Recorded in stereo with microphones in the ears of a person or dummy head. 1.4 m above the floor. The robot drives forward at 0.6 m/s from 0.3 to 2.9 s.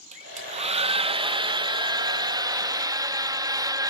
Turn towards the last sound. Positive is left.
turn(degrees=-15)  # may be behind; listen again after turning